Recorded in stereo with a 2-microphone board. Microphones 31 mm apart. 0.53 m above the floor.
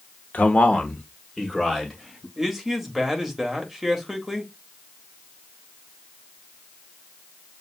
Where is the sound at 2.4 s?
5° right (ahead or behind), 1.2 m.